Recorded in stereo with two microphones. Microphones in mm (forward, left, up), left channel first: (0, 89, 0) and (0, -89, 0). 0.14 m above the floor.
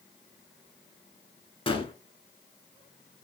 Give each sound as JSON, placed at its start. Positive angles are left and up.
{"t": 1.7, "sound": "a gunshot", "side_deg": 30, "distance_m": 0.6}